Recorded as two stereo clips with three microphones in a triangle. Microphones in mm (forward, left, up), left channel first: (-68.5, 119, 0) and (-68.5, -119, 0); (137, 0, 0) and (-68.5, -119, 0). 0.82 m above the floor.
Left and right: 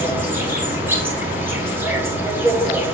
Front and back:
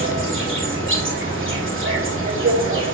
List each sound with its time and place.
0.0 s an insect: 170° right, 1.9 m